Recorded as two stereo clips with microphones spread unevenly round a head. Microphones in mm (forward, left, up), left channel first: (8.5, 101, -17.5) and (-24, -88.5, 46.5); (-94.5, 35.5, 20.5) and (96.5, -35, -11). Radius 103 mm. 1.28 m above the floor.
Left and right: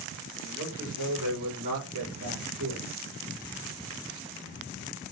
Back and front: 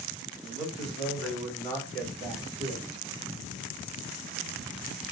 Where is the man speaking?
100° right, 3 m; by 2.9 s 130° right, 3.5 m.